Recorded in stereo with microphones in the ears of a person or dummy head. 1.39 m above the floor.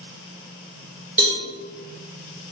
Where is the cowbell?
5° right (ahead or behind), 1.8 m.